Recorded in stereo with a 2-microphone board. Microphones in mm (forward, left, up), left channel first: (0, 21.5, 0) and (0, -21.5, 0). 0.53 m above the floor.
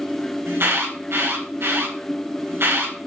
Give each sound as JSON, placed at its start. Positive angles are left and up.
{"t": 0.5, "sound": "an alarm", "side_deg": -70, "distance_m": 3.0}